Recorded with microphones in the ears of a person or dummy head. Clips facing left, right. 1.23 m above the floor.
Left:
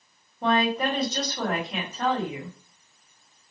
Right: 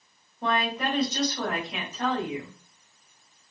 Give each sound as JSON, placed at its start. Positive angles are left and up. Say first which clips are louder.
{"t": 0.4, "sound": "a woman speaking", "louder": "left 4 dB", "side_deg": 75, "distance_m": 2.5}